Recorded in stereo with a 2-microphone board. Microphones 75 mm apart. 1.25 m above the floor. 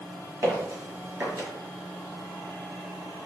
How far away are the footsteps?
About 1.5 m.